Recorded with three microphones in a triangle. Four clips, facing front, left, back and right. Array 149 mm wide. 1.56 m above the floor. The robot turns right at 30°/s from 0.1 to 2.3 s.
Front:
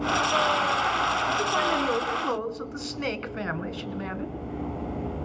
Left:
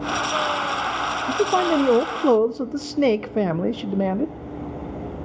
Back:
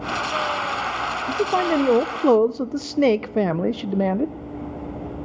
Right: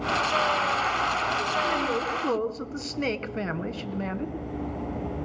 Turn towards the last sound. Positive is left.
turn(degrees=145)